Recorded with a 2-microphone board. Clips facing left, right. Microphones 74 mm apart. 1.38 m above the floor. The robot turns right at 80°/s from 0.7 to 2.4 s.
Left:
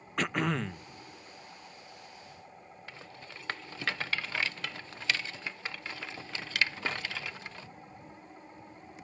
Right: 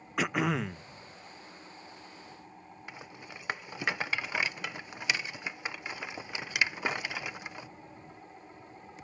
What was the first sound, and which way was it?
Throat clearing, 5° right (ahead or behind).